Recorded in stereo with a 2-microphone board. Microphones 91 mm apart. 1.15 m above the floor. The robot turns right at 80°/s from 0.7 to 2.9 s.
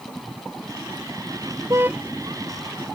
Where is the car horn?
35° right (ahead or behind); by 2.0 s 10° right (ahead or behind).